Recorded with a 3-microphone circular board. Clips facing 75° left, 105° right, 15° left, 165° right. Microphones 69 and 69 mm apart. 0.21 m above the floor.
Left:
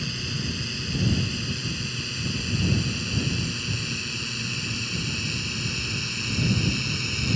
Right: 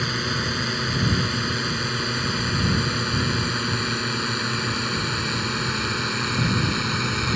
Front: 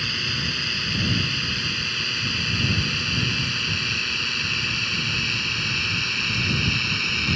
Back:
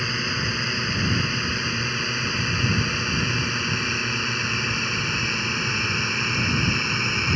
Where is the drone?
100° right.